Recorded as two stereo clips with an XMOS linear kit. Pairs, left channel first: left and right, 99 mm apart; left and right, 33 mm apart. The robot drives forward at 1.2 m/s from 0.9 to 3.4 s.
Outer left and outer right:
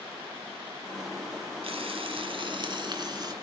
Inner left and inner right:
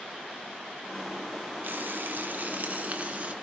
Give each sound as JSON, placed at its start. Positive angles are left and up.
{"t": 1.6, "sound": "frying", "side_deg": -65, "distance_m": 1.9}